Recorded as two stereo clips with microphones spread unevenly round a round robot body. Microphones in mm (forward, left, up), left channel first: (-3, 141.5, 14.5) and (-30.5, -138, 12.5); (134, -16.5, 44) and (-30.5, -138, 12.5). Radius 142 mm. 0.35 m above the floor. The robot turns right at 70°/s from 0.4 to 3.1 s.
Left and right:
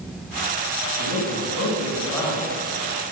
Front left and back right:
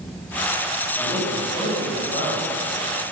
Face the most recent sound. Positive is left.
turn(degrees=-125)